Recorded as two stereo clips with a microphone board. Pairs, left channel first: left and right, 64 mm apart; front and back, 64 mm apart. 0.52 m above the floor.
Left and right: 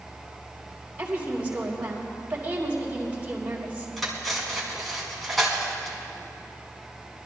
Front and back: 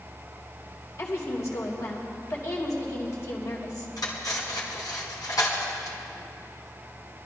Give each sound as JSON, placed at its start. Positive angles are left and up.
{"t": 1.0, "sound": "a woman speaking", "azimuth_deg": -25, "distance_m": 3.0}
{"t": 4.0, "sound": "cutlery clinking", "azimuth_deg": 0, "distance_m": 3.0}